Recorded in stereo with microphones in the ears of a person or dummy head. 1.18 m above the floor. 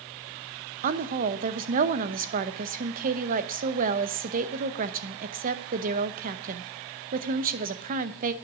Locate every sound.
0.8 s a woman speaking: 40° right (ahead or behind), 0.8 m